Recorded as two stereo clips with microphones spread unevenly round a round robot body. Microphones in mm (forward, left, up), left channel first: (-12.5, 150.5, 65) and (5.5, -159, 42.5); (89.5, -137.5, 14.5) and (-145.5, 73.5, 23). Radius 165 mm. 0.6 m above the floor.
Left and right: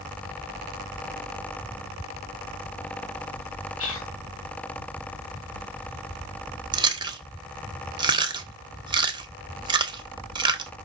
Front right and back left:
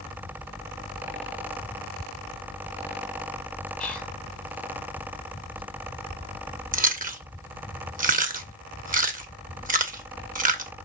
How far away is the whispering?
About 2.0 m.